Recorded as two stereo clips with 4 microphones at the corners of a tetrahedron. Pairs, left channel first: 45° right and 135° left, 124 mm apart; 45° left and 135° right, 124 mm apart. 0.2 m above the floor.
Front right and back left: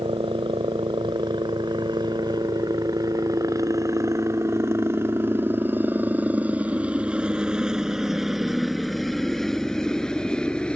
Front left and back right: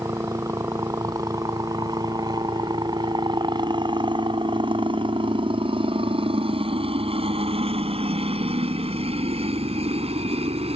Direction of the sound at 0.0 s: 165° left.